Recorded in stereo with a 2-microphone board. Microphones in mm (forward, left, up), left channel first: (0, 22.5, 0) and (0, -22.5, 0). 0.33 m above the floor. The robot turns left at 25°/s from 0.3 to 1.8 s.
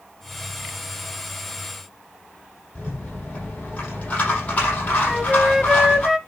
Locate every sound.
2.8 s a rattle: 35° left (ahead or behind), 6.5 m
5.1 s a flute: 10° right (ahead or behind), 0.6 m